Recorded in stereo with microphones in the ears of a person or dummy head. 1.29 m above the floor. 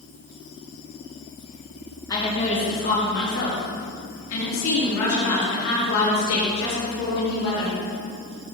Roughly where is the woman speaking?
Left.